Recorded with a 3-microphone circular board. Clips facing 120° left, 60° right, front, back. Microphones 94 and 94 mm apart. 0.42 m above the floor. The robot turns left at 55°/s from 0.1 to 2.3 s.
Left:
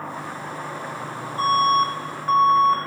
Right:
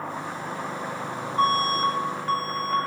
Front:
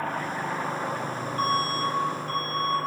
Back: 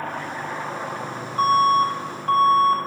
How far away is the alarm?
About 3 m.